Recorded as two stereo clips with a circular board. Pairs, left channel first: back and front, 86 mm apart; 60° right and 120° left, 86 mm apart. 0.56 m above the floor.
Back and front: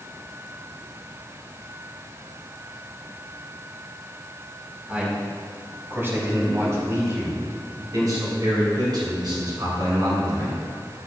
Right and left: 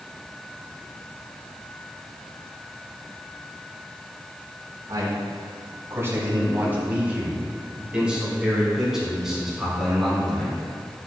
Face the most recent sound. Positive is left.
turn(degrees=30)